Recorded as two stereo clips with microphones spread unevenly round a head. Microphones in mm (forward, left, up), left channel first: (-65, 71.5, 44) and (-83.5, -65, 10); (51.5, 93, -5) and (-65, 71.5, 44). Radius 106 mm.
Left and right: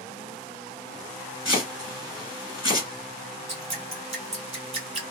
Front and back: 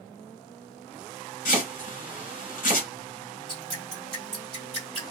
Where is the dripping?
120° right, 1.2 m.